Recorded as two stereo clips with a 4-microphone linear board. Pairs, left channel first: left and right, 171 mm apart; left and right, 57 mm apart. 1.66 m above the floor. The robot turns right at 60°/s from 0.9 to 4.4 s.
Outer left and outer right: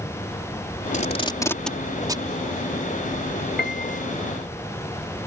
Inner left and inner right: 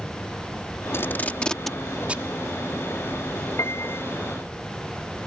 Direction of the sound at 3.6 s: 70° left (ahead or behind).